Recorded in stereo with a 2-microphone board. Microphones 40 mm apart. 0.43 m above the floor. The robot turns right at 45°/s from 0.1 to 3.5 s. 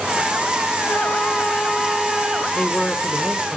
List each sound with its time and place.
0.9 s a flute: 130° left, 2.0 m; by 2.4 s 160° right, 2.0 m
2.5 s a man speaking: 20° left (ahead or behind), 1.0 m; by 3.6 s 10° left (ahead or behind), 1.0 m